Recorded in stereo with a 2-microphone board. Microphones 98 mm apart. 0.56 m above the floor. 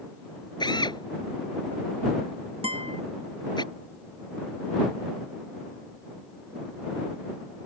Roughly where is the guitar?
Right.